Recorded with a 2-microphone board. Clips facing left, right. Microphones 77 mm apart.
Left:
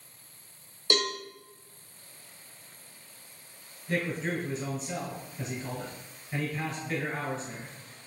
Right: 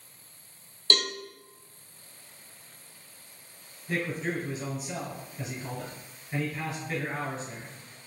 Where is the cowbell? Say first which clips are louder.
Left 1 dB; 15° left (ahead or behind), 0.6 m.